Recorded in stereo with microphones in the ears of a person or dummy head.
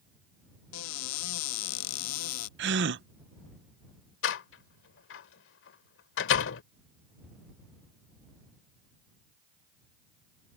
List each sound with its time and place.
0.7 s a cupboard door: 80° left
2.6 s a gasp: 60° right (ahead or behind)
4.2 s a door slam: 75° left (ahead or behind)